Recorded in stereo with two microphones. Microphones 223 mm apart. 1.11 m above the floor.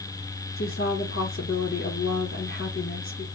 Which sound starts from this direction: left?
A woman speaking, at 0.6 s.